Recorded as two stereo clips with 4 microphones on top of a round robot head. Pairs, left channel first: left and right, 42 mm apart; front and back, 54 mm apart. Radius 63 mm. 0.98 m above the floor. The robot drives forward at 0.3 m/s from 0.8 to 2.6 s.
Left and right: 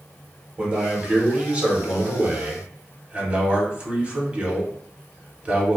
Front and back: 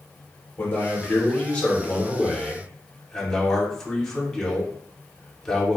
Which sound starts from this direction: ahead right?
A man speaking, at 0.6 s.